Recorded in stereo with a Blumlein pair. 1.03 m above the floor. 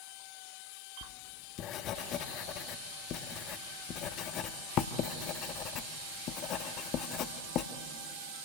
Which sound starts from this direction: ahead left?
Writing, at 1.0 s.